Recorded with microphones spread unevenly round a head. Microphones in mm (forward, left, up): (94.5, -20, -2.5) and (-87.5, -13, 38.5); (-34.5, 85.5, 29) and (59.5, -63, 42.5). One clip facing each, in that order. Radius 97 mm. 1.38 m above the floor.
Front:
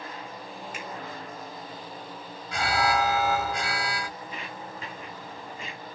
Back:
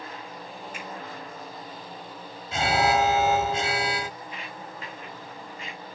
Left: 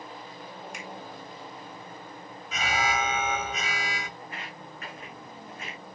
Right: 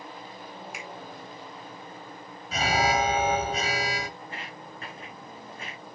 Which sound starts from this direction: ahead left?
A finger snap, at 0.7 s.